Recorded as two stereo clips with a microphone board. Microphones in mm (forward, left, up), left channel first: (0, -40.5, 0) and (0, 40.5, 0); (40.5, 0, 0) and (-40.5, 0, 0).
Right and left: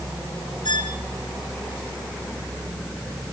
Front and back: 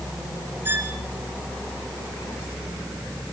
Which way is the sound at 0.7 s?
115° right.